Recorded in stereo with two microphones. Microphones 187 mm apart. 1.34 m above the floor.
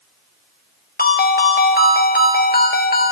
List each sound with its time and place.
1.0 s a ringtone: 55° left (ahead or behind), 0.7 m